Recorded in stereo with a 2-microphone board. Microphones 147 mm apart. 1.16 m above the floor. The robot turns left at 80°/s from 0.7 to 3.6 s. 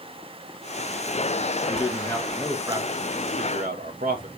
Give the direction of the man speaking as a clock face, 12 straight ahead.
10 o'clock.